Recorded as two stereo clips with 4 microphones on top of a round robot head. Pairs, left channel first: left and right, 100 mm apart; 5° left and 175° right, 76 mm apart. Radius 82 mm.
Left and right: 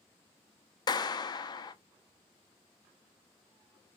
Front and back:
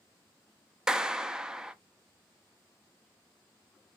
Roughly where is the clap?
Left.